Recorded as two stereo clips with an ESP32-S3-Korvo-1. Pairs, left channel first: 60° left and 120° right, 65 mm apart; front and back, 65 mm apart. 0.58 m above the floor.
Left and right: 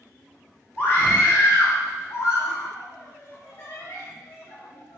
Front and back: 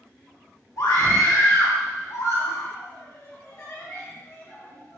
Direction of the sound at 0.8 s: 5° left.